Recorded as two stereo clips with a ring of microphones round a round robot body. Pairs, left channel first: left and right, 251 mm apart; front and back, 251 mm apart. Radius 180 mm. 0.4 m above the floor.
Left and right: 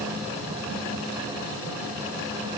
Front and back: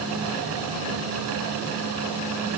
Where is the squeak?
I don't hear a squeak.